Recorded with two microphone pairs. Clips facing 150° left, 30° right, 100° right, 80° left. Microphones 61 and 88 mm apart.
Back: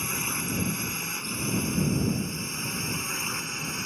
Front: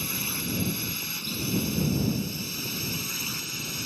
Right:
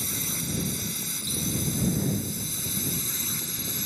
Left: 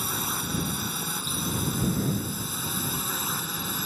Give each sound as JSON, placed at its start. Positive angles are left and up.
{"t": 0.0, "sound": "a drone", "azimuth_deg": 90}